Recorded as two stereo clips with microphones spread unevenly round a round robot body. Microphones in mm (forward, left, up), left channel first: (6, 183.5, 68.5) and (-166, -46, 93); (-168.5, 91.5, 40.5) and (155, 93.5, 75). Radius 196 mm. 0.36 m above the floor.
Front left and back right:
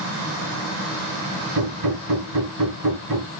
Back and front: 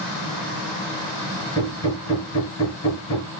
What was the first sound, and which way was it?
Hammering, 130° right.